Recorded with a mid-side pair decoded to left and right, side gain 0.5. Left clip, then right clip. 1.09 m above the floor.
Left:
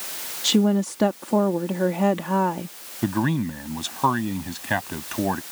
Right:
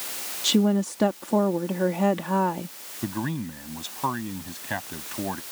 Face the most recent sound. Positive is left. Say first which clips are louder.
# left 7 dB
turn(degrees=35)